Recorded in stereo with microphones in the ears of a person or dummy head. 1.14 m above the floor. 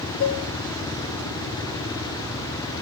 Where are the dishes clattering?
70° left (ahead or behind), 1.6 m.